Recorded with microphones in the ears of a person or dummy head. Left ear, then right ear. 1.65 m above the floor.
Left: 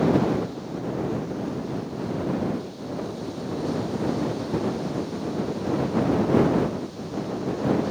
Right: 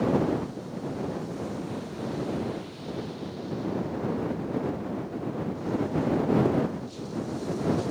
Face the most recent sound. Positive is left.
No sound to turn to.